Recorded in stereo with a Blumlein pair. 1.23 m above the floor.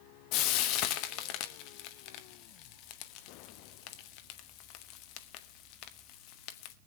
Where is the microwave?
No microwave in this recording.